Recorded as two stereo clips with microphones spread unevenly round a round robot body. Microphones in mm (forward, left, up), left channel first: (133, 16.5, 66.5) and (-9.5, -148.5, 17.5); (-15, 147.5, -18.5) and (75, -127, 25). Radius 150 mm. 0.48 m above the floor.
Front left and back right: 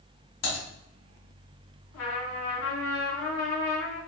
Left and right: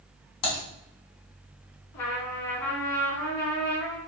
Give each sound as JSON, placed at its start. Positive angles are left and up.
{"t": 0.4, "sound": "typing on a keyboard", "azimuth_deg": 90, "distance_m": 3.0}
{"t": 1.9, "sound": "a trumpet", "azimuth_deg": 85, "distance_m": 2.5}